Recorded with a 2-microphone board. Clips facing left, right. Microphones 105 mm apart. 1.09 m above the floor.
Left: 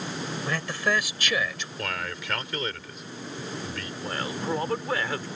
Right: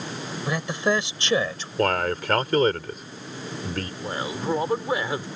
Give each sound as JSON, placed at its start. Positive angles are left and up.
{"t": 0.5, "sound": "a man speaking", "side_deg": -15}
{"t": 1.8, "sound": "a man speaking", "side_deg": -45}
{"t": 4.0, "sound": "a man speaking", "side_deg": -15}